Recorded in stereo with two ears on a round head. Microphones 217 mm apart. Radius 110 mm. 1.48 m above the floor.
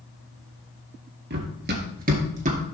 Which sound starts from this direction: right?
Running footsteps, at 1.3 s.